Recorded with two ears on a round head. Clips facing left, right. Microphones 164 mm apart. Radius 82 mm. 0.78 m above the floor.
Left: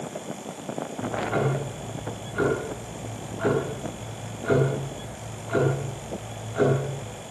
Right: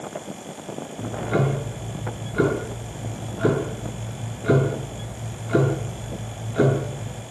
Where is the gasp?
No gasp in this recording.